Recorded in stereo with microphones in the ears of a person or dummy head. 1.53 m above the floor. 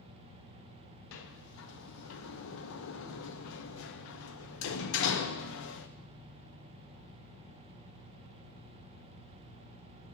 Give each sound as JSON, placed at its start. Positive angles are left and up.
{"t": 1.1, "sound": "a sliding door", "side_deg": 75, "distance_m": 0.6}